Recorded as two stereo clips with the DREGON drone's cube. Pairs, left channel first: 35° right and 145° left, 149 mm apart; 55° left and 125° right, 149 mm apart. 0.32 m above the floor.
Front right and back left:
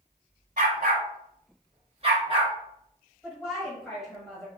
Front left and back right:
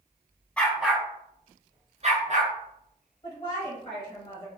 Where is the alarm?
No alarm in this recording.